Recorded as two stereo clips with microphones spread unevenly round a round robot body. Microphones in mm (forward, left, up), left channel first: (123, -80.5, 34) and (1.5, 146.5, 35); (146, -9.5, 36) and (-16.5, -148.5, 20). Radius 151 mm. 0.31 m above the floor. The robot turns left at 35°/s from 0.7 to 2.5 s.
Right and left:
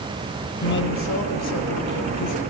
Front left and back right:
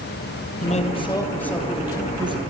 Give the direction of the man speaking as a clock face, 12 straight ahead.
1 o'clock.